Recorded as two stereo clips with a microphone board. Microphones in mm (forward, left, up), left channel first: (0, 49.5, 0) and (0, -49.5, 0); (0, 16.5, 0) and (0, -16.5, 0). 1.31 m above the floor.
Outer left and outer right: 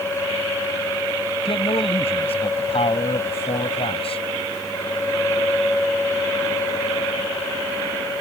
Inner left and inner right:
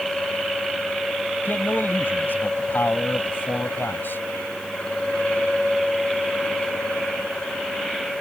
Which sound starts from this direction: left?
A man speaking, at 1.4 s.